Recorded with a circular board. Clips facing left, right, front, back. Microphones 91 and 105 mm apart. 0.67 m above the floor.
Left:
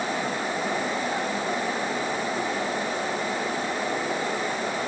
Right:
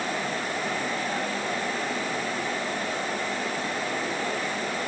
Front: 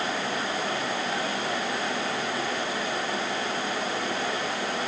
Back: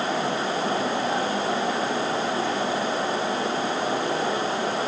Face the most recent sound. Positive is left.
No sound to turn to.